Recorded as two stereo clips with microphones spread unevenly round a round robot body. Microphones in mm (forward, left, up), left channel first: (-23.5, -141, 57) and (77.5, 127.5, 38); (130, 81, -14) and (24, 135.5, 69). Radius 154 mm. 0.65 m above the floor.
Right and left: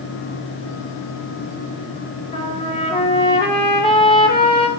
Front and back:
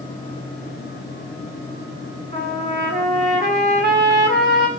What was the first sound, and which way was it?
A trumpet, 175° left.